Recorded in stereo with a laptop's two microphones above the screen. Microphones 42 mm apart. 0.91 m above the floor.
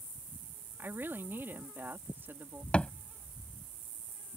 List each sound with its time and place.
0.8 s a woman speaking: 60° right (ahead or behind)
2.7 s a thud: 30° left (ahead or behind)